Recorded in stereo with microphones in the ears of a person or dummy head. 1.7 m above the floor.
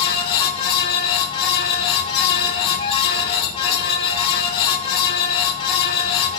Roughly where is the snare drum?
No snare drum in this recording.